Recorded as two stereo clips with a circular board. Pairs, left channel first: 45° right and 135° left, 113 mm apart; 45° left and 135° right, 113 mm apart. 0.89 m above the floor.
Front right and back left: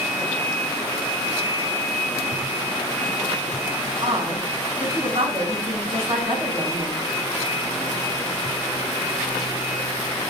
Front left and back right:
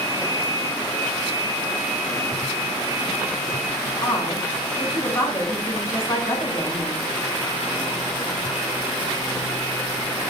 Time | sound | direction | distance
4.0 | a woman speaking | 105° left | 3 m